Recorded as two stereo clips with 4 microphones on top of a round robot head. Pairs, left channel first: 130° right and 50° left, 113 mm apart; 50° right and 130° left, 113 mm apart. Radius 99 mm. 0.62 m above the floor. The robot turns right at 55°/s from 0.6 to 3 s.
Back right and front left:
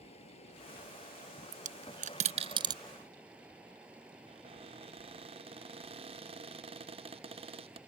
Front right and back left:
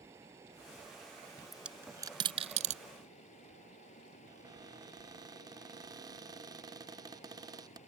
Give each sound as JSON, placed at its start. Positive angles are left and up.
{"t": 0.0, "sound": "running water", "azimuth_deg": -160}
{"t": 1.5, "sound": "a dropped coin", "azimuth_deg": 40}
{"t": 4.3, "sound": "a cupboard door", "azimuth_deg": 75}